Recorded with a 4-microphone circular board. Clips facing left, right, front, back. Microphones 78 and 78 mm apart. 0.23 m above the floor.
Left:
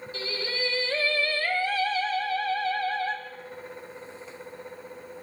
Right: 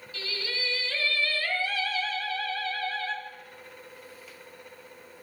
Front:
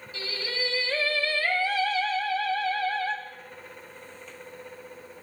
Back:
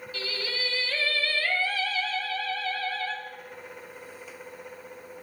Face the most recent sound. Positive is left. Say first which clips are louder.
# left 3 dB, front 1 dB
turn(degrees=55)